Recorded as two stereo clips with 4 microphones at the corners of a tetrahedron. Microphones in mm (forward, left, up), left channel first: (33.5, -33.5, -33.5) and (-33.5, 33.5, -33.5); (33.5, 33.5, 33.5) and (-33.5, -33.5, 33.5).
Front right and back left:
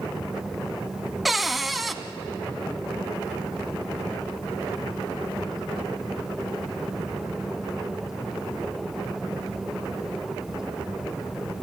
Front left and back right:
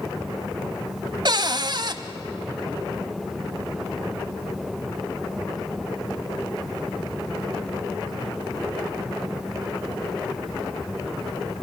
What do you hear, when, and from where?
1.2 s a cupboard door: 135° right, 0.9 m